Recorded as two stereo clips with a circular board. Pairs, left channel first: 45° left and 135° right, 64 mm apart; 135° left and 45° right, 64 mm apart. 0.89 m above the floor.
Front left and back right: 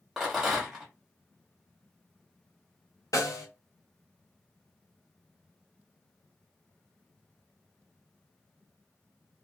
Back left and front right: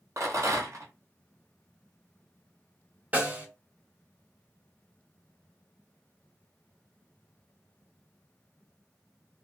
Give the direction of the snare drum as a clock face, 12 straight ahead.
11 o'clock.